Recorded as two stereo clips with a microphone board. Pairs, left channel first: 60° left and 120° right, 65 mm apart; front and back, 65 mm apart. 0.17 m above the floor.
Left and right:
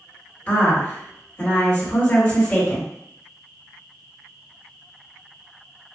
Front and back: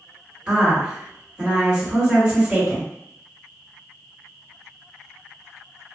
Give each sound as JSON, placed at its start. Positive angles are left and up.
{"t": 0.5, "sound": "a woman speaking", "azimuth_deg": 115, "distance_m": 1.9}